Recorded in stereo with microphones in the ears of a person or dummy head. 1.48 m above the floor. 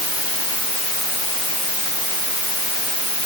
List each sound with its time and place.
Only background noise.